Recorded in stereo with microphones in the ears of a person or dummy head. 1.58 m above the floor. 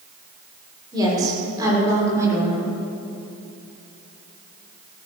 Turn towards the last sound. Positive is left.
turn(degrees=-15)  # may be behind; listen again after turning